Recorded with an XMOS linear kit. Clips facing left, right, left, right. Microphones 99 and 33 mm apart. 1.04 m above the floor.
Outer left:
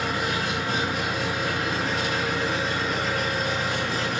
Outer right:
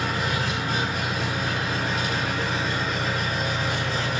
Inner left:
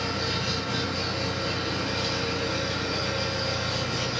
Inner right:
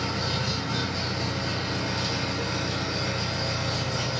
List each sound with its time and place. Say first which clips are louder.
0.0 s an engine running: even, even; 70° left (ahead or behind), 1.7 m